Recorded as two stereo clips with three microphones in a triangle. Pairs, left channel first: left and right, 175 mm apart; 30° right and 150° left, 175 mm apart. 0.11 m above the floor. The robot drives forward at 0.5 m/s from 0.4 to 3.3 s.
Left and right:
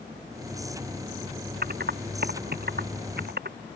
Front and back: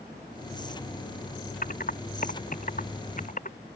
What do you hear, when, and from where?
1.6 s typing on a keyboard: 65° right; by 3.6 s 70° right